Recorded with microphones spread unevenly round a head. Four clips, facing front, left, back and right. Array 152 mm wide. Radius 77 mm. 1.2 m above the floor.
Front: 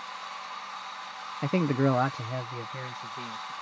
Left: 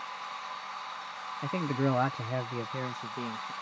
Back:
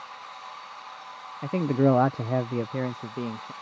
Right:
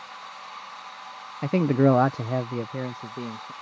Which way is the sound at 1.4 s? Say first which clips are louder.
Right 10 dB, back 3 dB; 45° right.